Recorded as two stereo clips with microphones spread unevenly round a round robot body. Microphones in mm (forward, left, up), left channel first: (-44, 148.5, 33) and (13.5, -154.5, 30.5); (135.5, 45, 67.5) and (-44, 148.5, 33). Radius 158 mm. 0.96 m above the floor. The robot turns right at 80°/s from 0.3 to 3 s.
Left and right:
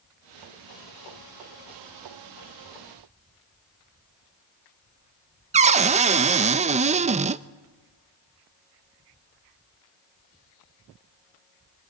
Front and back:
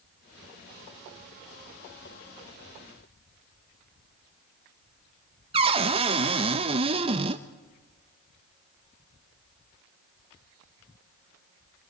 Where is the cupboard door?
150° right, 0.5 m.